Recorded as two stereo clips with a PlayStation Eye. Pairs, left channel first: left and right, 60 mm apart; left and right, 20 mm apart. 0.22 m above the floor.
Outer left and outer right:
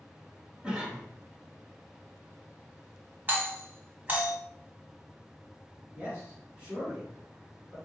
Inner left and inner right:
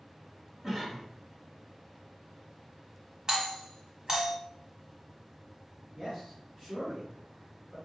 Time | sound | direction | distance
0.6 | a cough | 20° right (ahead or behind) | 1.0 m
3.3 | a doorbell | 35° right (ahead or behind) | 1.6 m
6.0 | a man speaking | 25° right (ahead or behind) | 2.5 m